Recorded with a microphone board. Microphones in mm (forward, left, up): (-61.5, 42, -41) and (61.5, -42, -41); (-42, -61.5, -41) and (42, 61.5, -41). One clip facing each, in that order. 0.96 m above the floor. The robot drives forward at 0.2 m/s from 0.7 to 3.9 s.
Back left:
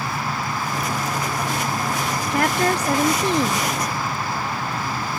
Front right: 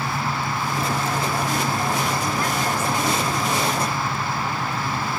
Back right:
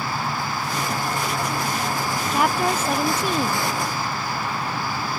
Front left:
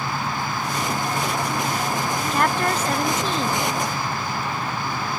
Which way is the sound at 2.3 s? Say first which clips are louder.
Back left 4 dB, back right 1 dB; 150° left.